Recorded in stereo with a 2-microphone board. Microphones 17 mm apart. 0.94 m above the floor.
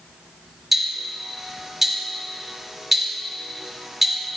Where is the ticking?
15° right (ahead or behind), 2.5 m.